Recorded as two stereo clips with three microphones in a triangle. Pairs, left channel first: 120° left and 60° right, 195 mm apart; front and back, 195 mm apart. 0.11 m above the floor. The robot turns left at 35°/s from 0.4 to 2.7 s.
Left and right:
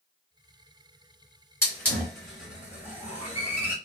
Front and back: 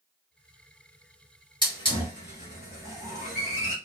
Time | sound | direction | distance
1.6 | a hiss | 50° left | 1.9 m